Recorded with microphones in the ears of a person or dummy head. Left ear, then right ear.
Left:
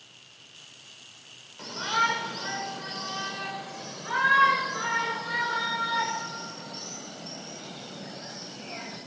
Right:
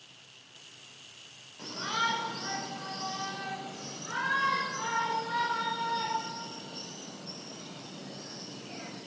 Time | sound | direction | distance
1.6 | a shout | 20° left (ahead or behind) | 6.5 m